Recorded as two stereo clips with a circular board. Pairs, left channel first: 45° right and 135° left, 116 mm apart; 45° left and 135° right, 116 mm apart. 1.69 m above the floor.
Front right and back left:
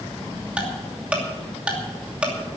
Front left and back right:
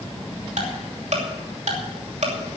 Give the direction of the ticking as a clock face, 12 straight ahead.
5 o'clock.